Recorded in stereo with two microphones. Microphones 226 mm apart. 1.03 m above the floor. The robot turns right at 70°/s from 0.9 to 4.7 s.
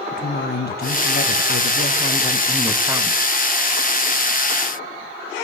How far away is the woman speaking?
About 0.6 m.